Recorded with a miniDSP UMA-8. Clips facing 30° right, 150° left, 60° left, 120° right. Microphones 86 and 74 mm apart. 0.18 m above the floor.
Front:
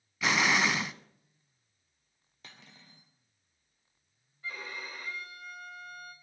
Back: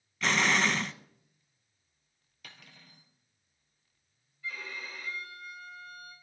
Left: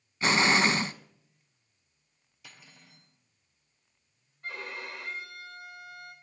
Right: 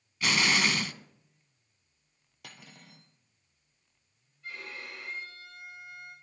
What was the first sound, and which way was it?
An explosion, 45° left.